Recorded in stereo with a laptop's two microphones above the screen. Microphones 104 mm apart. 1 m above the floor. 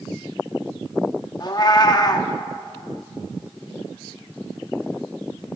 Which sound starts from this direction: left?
A cat meowing, at 1.4 s.